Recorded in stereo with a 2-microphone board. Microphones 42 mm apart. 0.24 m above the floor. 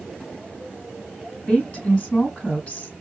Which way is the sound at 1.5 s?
30° left (ahead or behind).